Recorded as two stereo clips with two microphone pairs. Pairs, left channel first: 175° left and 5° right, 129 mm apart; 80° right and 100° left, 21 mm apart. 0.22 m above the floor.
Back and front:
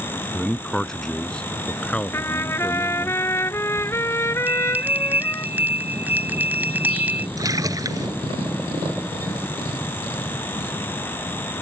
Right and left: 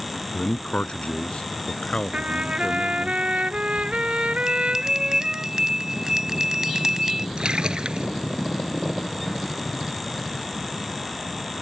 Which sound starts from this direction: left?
A trumpet, at 2.1 s.